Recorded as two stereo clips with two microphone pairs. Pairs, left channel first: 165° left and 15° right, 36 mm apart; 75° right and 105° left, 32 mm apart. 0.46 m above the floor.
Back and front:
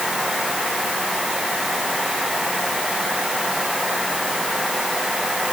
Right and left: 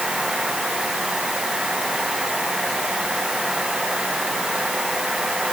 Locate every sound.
Only background noise.